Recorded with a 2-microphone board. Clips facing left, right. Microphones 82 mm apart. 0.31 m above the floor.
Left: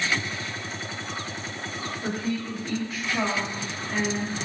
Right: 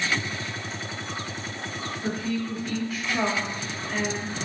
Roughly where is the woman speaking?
Left.